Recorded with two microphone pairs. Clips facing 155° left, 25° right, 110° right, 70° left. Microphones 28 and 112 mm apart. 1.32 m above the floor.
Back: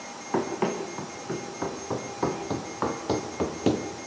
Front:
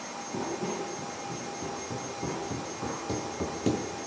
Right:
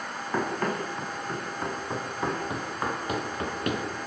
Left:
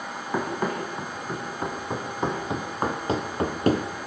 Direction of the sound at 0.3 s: 150° left.